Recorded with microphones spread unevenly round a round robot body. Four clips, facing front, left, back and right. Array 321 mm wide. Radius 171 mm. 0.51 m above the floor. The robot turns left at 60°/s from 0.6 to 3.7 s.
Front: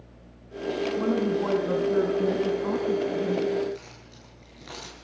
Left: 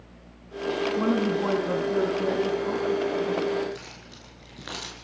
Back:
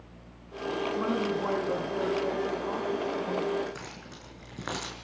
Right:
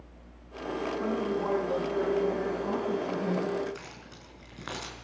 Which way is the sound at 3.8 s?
175° left.